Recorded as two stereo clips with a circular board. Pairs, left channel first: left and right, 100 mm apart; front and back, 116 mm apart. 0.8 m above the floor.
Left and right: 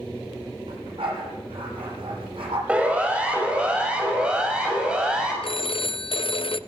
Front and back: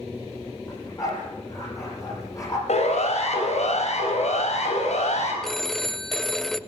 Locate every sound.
0.7 s a dog barking: 60° right, 9.5 m
2.7 s a siren: 15° right, 5.5 m; by 5.3 s 10° right, 7 m
5.4 s a phone ringing: 85° left, 0.6 m